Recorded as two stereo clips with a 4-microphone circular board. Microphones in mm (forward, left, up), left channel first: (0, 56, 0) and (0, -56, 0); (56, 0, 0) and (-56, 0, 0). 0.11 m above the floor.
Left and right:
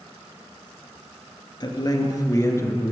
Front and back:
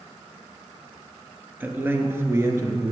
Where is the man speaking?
115° left, 1.9 m; by 2.9 s 150° left, 1.7 m.